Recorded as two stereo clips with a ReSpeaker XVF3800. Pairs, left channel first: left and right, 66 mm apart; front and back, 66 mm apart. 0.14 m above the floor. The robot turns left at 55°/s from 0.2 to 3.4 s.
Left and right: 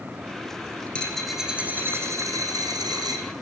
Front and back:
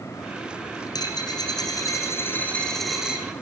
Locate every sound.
0.9 s a dropped coin: 20° left, 3.5 m; by 3.3 s 110° right, 3.5 m